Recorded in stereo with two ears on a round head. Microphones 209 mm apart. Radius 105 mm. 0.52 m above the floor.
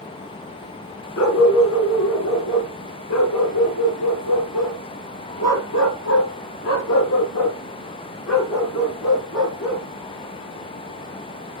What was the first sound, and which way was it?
A dog barking, 70° left (ahead or behind).